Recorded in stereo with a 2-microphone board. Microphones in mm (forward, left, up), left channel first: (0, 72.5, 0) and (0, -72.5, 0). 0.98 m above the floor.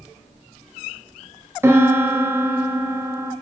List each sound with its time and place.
1.6 s a piano: 15° right (ahead or behind), 0.6 m